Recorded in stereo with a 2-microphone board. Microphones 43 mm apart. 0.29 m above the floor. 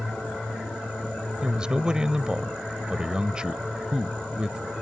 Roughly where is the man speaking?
Centre.